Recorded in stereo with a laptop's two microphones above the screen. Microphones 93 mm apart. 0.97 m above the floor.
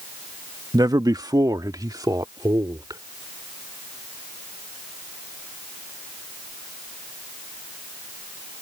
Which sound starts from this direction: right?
A man speaking, at 0.7 s.